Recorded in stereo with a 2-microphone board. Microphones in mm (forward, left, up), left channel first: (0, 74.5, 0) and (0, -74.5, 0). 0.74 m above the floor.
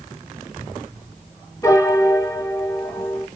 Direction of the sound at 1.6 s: 20° left (ahead or behind).